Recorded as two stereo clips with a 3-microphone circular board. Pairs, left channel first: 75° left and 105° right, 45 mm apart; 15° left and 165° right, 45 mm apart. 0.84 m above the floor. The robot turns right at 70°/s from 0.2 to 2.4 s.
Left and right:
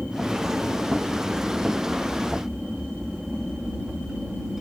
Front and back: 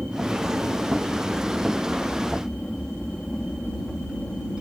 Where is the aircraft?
165° left; by 4.6 s 40° right.